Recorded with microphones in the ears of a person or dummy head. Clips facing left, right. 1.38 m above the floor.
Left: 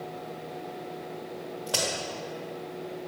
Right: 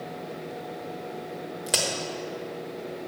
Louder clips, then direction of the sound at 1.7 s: Right 1 dB; 35° right (ahead or behind).